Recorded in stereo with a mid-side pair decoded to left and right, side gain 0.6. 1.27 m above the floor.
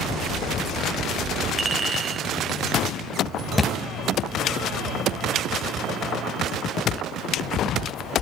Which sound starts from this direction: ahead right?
A clink, at 1.6 s.